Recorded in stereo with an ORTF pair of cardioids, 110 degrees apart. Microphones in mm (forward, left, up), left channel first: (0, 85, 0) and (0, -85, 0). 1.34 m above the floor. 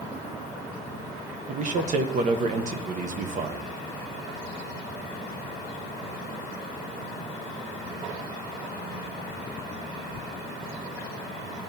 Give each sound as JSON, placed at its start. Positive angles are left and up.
{"t": 1.5, "sound": "a man speaking", "azimuth_deg": -50, "distance_m": 0.9}